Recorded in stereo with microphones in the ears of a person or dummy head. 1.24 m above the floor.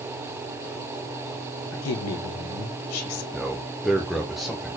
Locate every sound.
1.7 s a woman speaking: 75° left (ahead or behind), 1.1 m
3.3 s a man speaking: centre (ahead or behind), 0.5 m